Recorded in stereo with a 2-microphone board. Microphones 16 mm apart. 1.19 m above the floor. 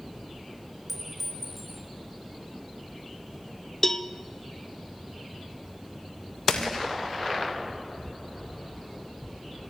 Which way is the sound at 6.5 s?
75° left (ahead or behind).